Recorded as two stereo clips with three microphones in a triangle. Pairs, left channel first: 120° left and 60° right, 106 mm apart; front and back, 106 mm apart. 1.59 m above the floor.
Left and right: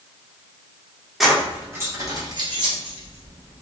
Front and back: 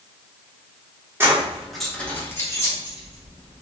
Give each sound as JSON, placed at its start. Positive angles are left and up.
{"t": 1.2, "sound": "keys jangling", "azimuth_deg": -145, "distance_m": 0.7}